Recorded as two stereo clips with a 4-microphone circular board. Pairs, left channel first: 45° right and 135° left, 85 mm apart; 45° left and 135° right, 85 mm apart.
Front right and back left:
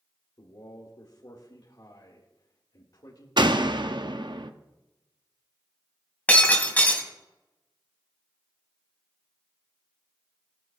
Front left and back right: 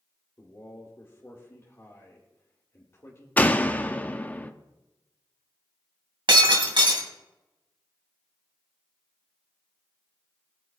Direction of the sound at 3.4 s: 115° left.